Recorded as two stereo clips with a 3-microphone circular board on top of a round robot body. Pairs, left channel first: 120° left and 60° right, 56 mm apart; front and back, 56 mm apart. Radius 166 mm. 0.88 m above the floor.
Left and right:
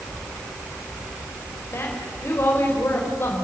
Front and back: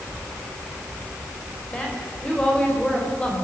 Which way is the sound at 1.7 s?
75° left.